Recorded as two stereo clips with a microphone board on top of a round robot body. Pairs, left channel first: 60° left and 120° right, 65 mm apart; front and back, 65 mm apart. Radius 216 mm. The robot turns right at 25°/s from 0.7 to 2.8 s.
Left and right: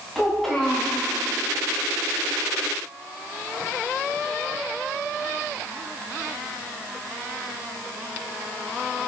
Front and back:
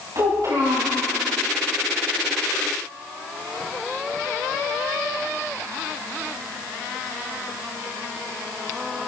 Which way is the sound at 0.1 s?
145° left.